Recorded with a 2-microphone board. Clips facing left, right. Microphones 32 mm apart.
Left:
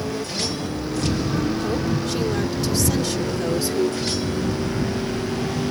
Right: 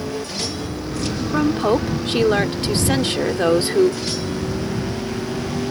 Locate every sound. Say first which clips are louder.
1.3 s a woman speaking: right 5 dB; 50° right (ahead or behind)